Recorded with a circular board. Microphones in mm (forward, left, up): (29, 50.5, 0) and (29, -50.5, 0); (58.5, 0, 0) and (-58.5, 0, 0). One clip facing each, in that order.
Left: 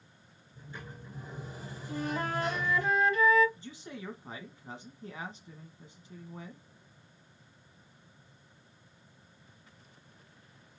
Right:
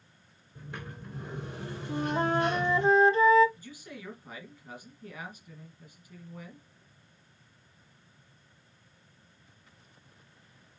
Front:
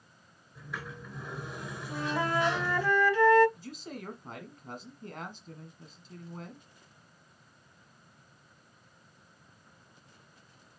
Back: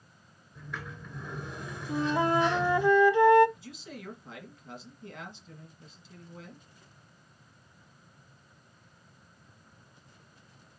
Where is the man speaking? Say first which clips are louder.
Left 1 dB, front 2 dB; 30° left, 1.6 m.